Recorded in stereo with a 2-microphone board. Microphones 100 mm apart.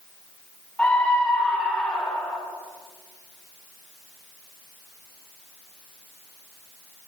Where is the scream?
15° left (ahead or behind), 4 m.